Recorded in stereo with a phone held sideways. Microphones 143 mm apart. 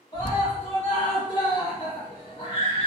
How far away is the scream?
About 1.7 m.